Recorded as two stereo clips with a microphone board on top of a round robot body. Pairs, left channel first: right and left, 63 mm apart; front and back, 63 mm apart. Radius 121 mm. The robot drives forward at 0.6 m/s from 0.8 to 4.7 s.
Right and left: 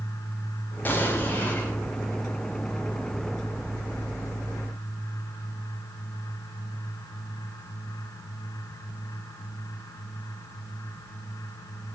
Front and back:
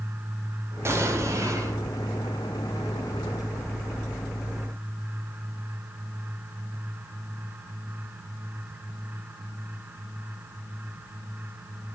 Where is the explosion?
145° right, 1.6 m; by 1.7 s 155° right, 2.0 m.